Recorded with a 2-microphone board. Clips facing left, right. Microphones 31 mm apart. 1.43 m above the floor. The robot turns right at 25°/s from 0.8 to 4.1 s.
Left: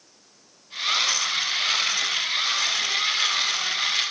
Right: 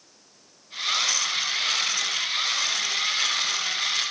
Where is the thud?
No thud in this recording.